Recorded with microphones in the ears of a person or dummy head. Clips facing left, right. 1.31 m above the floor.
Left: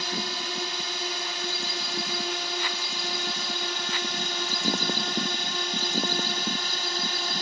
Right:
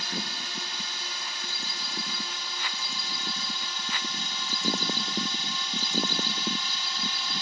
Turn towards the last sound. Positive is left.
turn(degrees=40)  # may be behind; listen again after turning